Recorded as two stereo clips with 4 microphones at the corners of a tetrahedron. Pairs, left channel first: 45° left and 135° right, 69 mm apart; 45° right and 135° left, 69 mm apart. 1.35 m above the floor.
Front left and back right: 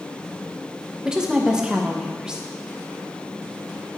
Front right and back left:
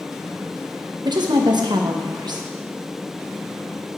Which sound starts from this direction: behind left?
A woman speaking, at 1.1 s.